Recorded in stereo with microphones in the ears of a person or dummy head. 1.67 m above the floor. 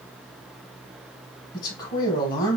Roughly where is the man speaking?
Centre.